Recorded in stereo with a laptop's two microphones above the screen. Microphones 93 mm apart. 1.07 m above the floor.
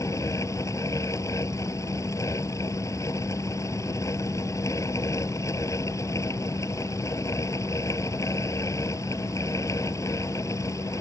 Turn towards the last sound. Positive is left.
turn(degrees=35)  # may be behind; listen again after turning